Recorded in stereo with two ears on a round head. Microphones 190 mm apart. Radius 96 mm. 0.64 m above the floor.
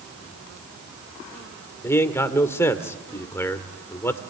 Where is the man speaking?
10° left (ahead or behind), 1.7 m.